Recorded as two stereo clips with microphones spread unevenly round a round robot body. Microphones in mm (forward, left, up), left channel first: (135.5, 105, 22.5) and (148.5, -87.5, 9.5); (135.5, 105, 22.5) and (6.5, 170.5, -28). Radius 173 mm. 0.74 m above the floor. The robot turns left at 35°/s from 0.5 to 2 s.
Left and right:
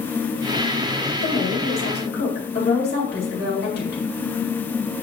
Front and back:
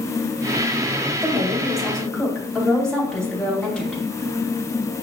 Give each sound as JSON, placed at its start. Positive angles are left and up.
{"t": 1.2, "sound": "a woman speaking", "azimuth_deg": 95, "distance_m": 2.5}